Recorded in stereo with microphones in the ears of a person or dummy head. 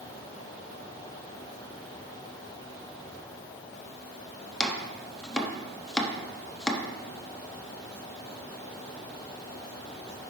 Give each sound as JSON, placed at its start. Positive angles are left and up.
{"t": 4.6, "sound": "chopping", "side_deg": 5, "distance_m": 0.8}